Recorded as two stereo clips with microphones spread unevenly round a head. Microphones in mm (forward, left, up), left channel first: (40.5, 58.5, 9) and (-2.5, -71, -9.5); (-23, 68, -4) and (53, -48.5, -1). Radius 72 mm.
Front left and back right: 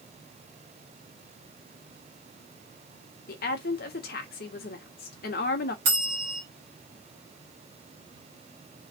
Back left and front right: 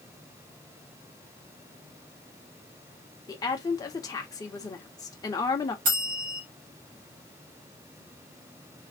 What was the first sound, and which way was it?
A woman speaking, 60° left.